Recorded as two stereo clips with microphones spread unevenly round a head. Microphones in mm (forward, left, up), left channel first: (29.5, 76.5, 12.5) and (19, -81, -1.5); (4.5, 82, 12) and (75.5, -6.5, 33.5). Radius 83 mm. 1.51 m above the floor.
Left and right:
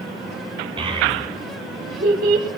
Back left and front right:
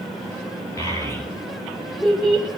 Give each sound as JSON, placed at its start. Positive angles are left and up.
{"t": 0.8, "sound": "a child speaking", "azimuth_deg": -160, "distance_m": 4.0}